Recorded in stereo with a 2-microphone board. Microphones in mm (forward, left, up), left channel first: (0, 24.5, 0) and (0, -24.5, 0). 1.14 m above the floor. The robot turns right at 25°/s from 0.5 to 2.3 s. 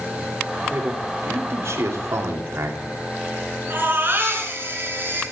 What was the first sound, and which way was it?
A man speaking, 130° right.